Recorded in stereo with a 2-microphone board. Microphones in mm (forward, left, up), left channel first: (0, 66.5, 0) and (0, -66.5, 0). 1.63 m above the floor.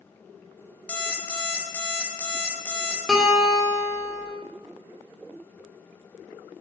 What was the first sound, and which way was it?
An alarm clock, 10° left (ahead or behind).